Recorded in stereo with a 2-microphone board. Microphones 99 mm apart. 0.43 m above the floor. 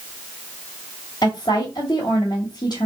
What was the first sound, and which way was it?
A woman speaking, 45° left (ahead or behind).